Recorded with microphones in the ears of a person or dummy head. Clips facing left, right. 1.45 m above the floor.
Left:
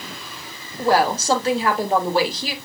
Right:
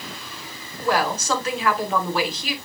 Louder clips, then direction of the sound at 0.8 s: Left 4 dB; 30° left (ahead or behind).